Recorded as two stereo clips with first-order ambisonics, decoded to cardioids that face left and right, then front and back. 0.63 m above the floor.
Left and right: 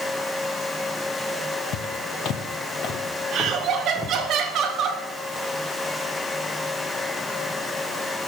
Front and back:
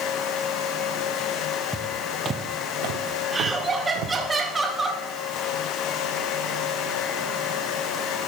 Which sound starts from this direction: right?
Laughter, at 3.3 s.